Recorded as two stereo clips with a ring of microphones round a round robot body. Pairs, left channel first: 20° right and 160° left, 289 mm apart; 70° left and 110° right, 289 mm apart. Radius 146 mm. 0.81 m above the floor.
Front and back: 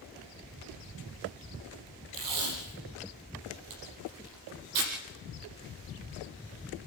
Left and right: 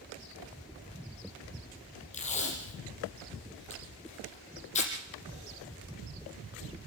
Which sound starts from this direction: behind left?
Tape being pulled, at 2.1 s.